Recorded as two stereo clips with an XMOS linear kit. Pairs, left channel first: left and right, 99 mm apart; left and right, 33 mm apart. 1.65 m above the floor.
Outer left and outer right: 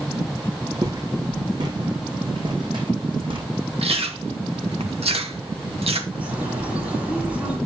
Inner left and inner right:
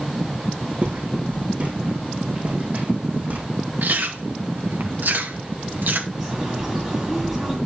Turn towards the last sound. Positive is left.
turn(degrees=-15)  # may be behind; listen again after turning